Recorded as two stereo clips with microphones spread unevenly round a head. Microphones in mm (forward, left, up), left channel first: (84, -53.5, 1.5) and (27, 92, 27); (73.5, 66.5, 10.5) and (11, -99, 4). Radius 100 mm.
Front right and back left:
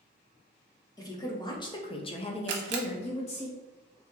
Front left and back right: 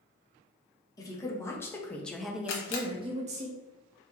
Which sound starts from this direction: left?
A camera shutter, at 2.5 s.